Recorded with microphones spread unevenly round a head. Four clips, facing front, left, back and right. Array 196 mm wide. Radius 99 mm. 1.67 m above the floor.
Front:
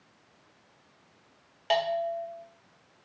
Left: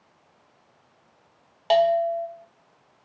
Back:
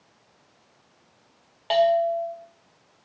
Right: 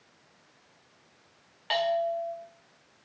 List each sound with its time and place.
1.7 s a bell: 100° left, 0.8 m